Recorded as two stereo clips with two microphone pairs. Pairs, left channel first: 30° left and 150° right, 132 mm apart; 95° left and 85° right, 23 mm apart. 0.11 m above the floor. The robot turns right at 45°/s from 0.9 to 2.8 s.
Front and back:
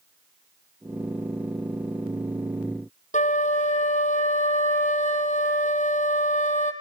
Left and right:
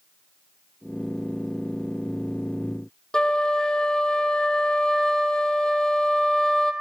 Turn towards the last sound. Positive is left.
turn(degrees=35)